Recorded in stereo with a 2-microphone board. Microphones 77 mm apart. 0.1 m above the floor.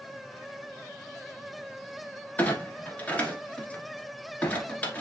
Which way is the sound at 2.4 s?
20° left (ahead or behind).